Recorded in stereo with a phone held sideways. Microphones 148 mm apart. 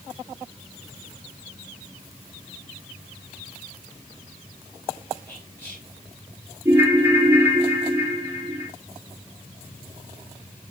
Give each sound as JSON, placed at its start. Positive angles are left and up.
{"t": 5.3, "sound": "whispering", "side_deg": 15, "distance_m": 5.0}
{"t": 6.7, "sound": "a ringtone", "side_deg": -15, "distance_m": 1.6}